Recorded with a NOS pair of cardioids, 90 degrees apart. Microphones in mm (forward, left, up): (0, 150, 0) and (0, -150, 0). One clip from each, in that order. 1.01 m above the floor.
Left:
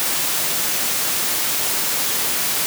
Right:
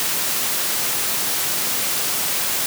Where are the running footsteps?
I don't hear running footsteps.